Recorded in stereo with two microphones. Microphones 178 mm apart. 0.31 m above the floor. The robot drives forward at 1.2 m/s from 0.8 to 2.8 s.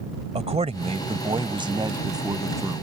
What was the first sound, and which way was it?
A man speaking, 40° right (ahead or behind).